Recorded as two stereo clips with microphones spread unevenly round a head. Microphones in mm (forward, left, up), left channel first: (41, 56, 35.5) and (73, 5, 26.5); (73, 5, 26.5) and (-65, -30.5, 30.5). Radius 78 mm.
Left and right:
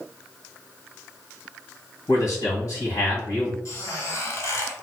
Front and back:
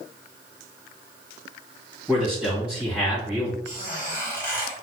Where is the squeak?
90° left, 1.4 m.